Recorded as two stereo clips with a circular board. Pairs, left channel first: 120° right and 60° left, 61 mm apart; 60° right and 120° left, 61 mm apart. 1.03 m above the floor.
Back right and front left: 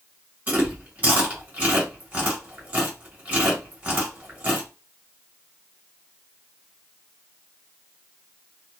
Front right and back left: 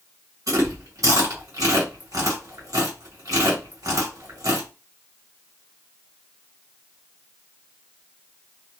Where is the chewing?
120° left, 1.8 m.